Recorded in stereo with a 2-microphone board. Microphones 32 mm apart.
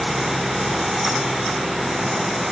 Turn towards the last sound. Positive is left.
No sound to turn to.